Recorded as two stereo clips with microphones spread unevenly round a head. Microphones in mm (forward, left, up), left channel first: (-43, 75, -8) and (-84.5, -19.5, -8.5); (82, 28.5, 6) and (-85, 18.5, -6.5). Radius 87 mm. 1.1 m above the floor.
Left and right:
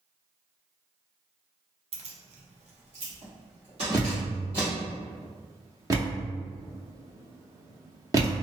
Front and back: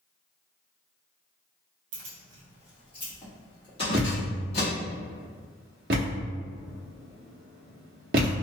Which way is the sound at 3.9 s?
165° right.